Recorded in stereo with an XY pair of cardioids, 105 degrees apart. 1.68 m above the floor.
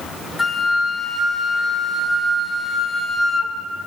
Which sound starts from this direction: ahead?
A flute, at 0.4 s.